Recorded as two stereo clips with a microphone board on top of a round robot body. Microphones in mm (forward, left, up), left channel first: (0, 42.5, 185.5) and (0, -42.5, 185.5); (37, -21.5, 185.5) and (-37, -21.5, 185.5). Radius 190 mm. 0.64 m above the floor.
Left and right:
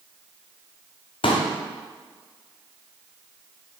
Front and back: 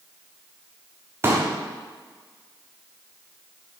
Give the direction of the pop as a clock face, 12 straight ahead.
8 o'clock.